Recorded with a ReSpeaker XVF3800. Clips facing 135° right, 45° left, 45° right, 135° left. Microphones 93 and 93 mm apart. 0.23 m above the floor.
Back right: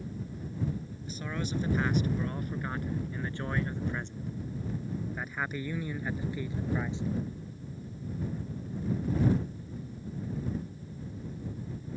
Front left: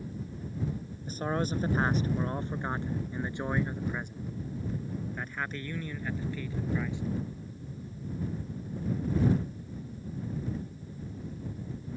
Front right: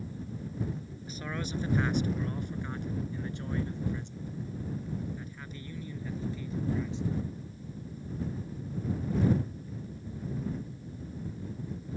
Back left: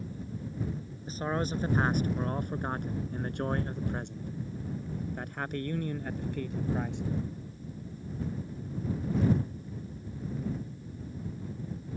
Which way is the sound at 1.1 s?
85° left.